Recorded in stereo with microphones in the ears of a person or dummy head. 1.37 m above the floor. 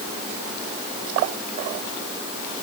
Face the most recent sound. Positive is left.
No sound to turn to.